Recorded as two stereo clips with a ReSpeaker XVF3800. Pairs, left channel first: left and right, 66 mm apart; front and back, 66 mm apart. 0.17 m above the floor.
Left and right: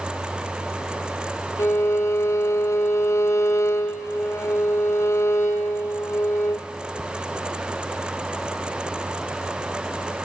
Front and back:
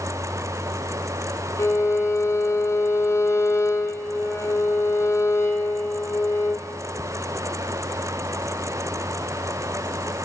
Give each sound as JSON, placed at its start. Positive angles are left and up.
{"t": 1.6, "sound": "a violin", "azimuth_deg": 45, "distance_m": 1.8}